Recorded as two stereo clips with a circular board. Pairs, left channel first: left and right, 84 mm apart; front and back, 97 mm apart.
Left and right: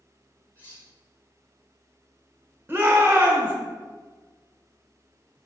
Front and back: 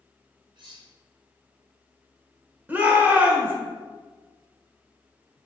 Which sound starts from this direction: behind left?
Cutlery clinking, at 0.6 s.